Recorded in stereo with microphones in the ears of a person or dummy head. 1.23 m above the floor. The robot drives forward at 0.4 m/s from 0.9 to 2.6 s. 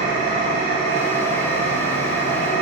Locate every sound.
0.0 s an engine running: 50° right (ahead or behind), 1.5 m; by 2.6 s 40° right (ahead or behind), 1.8 m